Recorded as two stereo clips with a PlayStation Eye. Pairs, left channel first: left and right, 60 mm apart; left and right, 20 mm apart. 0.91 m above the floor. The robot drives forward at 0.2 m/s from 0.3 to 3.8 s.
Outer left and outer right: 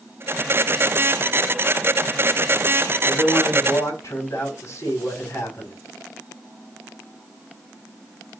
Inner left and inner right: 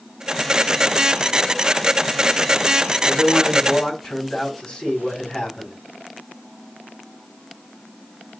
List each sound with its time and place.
3.0 s a man speaking: 55° left (ahead or behind), 5.5 m